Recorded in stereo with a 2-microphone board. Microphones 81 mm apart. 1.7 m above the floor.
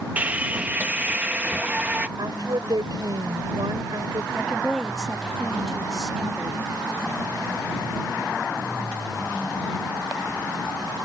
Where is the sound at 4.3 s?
Centre (ahead or behind).